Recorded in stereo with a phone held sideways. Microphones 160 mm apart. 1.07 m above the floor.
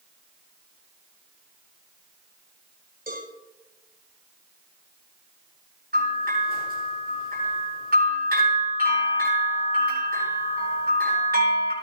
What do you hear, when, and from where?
3.1 s a cowbell: 70° right (ahead or behind), 5.5 m
5.9 s a bell: 70° right (ahead or behind), 7.5 m